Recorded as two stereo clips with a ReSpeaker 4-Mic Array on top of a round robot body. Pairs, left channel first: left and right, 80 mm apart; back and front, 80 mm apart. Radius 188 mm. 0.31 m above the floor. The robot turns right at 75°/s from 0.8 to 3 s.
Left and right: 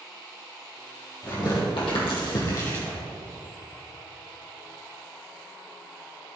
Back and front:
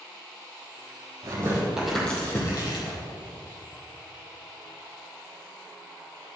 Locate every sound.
1.2 s tearing paper: 40° left, 3 m; by 3.0 s 170° left, 3 m